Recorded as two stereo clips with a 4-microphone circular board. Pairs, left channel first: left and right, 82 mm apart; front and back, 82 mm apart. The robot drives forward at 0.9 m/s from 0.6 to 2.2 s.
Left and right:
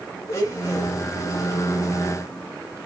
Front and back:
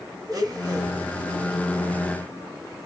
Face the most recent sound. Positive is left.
turn(degrees=155)